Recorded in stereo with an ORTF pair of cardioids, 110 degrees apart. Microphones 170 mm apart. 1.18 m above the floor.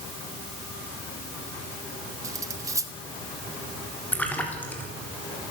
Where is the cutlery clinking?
20° right, 1.7 m.